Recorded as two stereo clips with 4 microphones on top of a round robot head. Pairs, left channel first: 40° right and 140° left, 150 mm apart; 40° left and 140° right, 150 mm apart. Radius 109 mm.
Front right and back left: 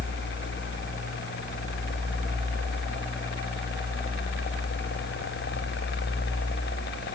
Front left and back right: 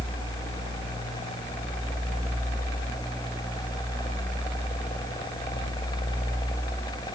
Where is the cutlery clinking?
No cutlery clinking in this recording.